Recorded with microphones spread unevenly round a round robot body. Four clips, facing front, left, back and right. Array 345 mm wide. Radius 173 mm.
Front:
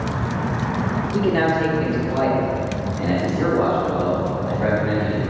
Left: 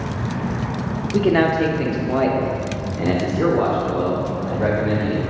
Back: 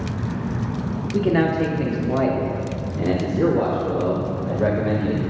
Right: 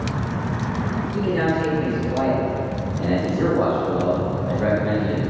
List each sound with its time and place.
1.1 s a man speaking: 85° left, 1.0 m; by 5.2 s straight behind, 2 m